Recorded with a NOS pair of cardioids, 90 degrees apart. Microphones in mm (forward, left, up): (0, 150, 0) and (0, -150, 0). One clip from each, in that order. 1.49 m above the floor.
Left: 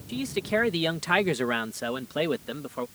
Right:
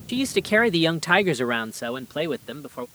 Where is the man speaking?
50° right; by 2.9 s 5° left.